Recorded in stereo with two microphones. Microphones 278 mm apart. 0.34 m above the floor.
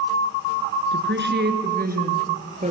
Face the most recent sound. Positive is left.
turn(degrees=-25)  # may be behind; listen again after turning